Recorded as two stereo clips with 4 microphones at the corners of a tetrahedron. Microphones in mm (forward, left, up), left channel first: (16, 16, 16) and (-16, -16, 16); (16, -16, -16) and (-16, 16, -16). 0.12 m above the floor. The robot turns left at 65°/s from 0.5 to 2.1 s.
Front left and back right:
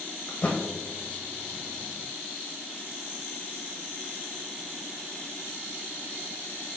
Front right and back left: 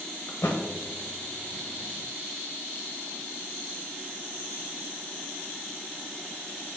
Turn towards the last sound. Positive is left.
turn(degrees=-125)